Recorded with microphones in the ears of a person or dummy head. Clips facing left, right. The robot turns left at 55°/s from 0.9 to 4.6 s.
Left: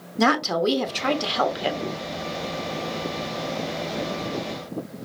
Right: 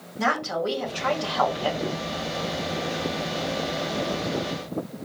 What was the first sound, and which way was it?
A woman speaking, 65° left.